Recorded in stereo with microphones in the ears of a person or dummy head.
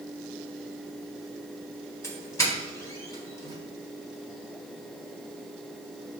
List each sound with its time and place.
2.0 s a doorbell: 15° left (ahead or behind), 1.2 m